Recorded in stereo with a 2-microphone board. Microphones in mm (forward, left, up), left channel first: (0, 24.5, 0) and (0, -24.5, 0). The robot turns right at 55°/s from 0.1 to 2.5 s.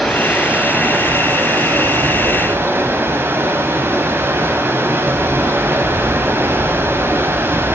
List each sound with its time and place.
0.0 s running water: straight behind, 4 m; by 7.8 s 50° right, 4 m